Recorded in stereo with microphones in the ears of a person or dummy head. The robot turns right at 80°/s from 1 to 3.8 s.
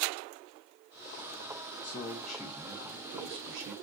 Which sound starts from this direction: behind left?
A man speaking, at 1.8 s.